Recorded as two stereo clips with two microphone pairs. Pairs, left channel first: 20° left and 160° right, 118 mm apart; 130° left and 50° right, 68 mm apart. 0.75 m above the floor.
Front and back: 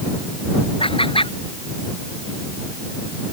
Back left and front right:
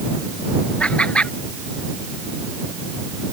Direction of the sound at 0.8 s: 60° left.